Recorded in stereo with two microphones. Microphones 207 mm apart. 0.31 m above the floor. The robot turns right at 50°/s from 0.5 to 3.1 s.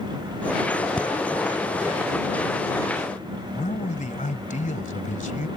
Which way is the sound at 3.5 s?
40° left (ahead or behind).